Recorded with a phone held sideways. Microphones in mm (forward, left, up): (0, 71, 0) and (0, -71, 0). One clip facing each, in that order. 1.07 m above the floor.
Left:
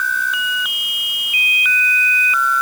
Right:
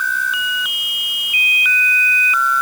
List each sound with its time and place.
Only background noise.